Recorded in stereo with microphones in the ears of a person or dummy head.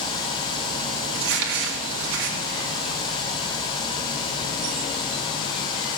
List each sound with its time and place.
1.1 s crumpling: 70° right (ahead or behind), 2 m